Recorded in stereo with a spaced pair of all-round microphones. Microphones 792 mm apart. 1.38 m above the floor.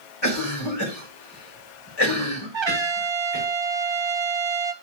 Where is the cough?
30° left (ahead or behind), 4 m.